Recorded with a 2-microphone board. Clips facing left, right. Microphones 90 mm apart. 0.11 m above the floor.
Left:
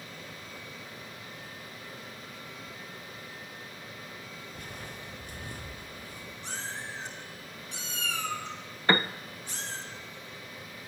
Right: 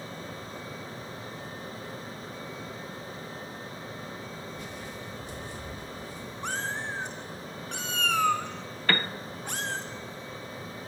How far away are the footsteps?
About 1.4 m.